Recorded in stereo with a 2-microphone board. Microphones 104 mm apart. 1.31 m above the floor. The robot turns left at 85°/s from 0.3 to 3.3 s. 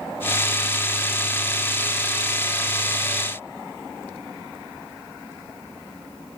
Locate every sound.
Only background noise.